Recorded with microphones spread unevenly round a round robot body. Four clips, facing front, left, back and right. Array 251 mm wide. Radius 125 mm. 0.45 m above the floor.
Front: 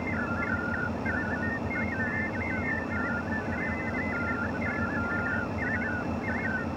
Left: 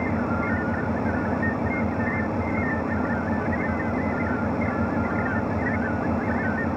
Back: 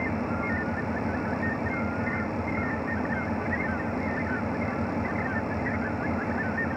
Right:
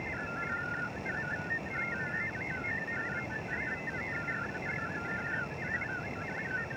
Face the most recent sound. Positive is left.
turn(degrees=100)